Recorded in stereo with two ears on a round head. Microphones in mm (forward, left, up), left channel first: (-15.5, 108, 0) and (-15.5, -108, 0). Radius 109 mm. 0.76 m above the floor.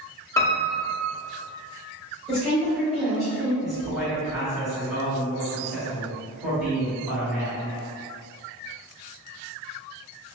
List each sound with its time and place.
0.4 s a piano: 10° left (ahead or behind), 0.6 m
2.3 s a woman speaking: centre (ahead or behind), 1.2 m
3.6 s a man speaking: centre (ahead or behind), 1.8 m